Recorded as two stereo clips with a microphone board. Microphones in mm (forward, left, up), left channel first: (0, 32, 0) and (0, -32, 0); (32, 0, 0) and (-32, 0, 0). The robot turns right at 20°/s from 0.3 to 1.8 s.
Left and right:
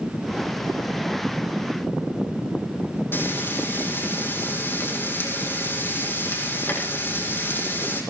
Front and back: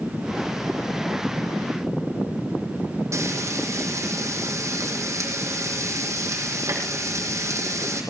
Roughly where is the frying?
Behind left.